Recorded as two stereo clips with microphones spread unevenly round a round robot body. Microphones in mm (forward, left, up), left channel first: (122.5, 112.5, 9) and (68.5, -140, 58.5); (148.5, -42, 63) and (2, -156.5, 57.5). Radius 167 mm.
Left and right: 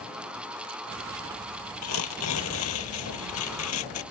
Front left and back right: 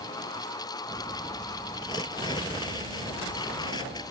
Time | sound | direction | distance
1.8 | tearing paper | 115° left | ?